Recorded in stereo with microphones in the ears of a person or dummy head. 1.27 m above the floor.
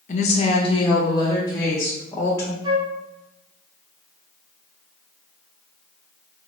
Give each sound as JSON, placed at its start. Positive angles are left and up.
{"t": 0.1, "sound": "a woman speaking", "side_deg": 40, "distance_m": 0.6}
{"t": 2.6, "sound": "a flute", "side_deg": -25, "distance_m": 0.7}